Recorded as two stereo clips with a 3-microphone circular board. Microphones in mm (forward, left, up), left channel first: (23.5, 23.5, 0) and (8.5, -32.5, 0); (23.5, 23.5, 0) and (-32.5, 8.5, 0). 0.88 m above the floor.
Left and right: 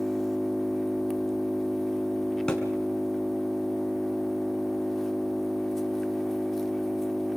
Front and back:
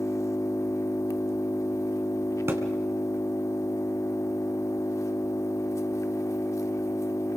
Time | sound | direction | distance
0.0 | an engine running | 10° right | 0.9 m
2.5 | a thud | 155° left | 3 m